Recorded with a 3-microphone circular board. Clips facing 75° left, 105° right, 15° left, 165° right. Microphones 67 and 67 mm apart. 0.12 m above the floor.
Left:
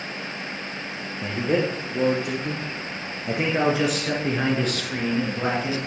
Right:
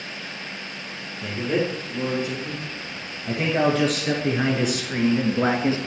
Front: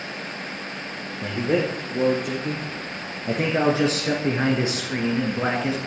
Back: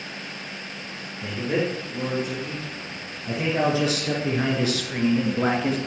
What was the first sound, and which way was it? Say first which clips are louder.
A man speaking: left 1 dB, front 3 dB; 30° left.